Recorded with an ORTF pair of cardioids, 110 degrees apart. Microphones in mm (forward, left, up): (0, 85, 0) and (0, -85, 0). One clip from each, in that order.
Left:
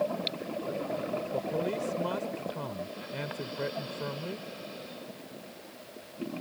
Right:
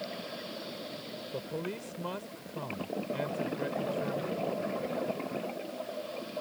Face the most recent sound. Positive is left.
turn(degrees=15)